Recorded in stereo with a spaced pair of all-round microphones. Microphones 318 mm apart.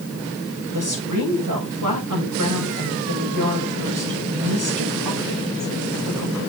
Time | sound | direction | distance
0.7 | a woman speaking | 75° right (ahead or behind) | 6.5 m